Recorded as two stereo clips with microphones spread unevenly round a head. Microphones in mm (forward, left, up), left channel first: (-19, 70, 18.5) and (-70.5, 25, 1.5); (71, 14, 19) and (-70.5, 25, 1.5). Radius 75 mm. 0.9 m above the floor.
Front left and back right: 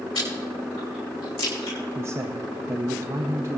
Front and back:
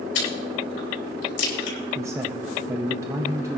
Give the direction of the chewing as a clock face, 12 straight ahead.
1 o'clock.